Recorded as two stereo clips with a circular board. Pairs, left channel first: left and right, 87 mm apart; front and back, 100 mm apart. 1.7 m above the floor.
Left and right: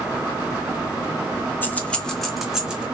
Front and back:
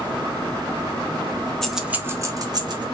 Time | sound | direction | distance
1.6 | keys jangling | 75° left | 0.6 m